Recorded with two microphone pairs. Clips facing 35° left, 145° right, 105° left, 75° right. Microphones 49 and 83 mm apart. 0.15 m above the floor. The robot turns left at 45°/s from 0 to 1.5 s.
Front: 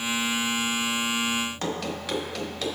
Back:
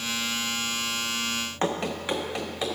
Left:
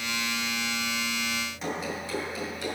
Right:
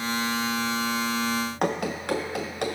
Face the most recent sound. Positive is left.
turn(degrees=-80)